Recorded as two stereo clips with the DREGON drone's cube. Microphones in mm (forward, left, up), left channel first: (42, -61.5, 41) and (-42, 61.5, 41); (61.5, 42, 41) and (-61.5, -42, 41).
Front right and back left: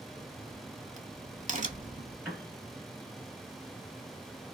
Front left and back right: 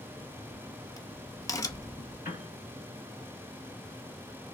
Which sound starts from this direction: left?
A crack, at 0.1 s.